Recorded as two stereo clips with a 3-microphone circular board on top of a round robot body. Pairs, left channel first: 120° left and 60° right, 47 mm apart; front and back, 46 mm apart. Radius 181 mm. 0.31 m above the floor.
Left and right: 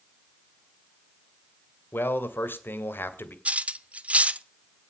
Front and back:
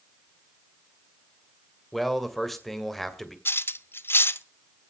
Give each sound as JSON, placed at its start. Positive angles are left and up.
{"t": 1.9, "sound": "a man speaking", "azimuth_deg": 90, "distance_m": 2.5}
{"t": 3.5, "sound": "cutlery clinking", "azimuth_deg": -5, "distance_m": 0.9}